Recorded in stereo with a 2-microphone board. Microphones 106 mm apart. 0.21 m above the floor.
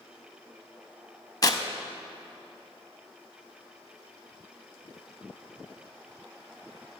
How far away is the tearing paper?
About 0.5 m.